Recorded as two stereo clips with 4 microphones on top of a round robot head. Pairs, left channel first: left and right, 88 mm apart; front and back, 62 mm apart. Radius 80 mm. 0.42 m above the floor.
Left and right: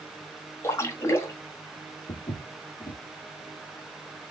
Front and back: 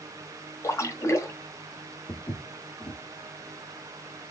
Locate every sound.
0.6 s a splash: 35° left, 0.9 m
2.1 s footsteps: 45° left, 0.9 m